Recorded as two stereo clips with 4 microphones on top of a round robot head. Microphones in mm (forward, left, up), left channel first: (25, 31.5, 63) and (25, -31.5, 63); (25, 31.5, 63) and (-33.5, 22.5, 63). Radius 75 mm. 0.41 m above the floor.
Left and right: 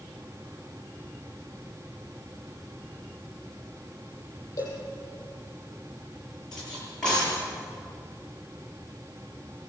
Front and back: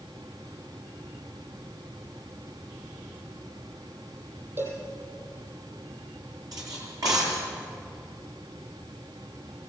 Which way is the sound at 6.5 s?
170° left.